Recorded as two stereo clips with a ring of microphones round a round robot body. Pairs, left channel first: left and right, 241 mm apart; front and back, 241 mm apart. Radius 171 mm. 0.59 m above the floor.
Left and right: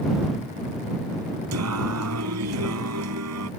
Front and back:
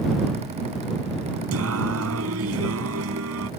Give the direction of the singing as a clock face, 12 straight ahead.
4 o'clock.